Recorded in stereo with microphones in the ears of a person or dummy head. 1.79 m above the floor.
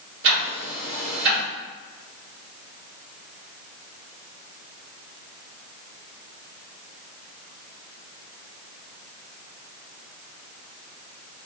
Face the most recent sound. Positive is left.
turn(degrees=-60)  # may be behind; listen again after turning